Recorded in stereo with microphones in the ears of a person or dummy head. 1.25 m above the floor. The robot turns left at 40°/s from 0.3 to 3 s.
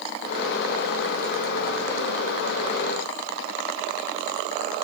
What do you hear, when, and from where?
Only background noise.